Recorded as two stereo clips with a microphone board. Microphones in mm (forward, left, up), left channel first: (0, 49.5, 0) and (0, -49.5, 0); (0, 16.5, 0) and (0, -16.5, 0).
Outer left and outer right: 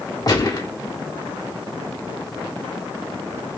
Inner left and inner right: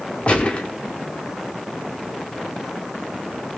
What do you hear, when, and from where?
0.3 s a gunshot: 40° left (ahead or behind), 1.2 m